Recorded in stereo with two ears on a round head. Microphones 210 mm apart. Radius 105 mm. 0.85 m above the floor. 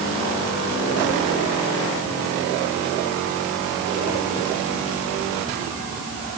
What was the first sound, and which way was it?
Only background noise.